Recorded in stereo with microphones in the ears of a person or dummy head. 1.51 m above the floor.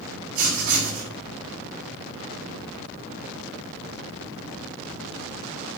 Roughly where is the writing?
Right.